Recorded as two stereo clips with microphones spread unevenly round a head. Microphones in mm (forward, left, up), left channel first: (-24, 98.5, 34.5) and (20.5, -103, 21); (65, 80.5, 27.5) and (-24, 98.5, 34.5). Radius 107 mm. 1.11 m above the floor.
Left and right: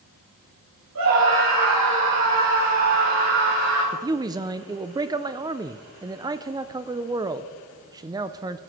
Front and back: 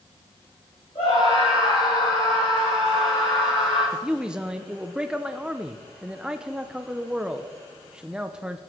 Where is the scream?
75° right, 6.5 m; by 3.8 s 80° right, 8.5 m.